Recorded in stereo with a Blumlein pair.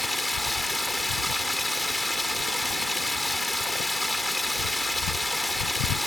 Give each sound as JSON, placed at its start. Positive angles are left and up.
{"t": 0.0, "sound": "running water", "azimuth_deg": 5}